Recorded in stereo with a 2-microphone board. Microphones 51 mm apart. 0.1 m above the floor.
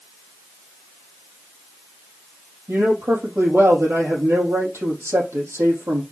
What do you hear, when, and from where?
2.7 s a man speaking: 65° right (ahead or behind), 4 m